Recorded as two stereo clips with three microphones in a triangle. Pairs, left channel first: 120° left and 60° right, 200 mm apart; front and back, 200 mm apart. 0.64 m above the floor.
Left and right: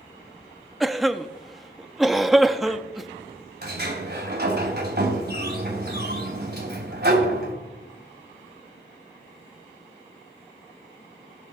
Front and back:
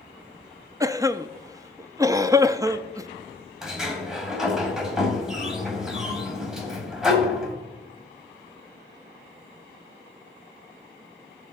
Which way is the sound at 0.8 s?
150° right.